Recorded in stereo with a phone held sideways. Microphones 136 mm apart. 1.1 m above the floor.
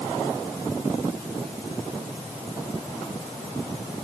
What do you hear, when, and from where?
Only background noise.